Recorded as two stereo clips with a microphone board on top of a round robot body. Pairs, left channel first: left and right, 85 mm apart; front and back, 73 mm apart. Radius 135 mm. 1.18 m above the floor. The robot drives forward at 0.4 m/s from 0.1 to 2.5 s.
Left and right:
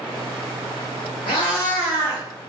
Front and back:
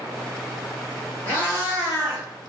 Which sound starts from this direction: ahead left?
A cat meowing, at 1.3 s.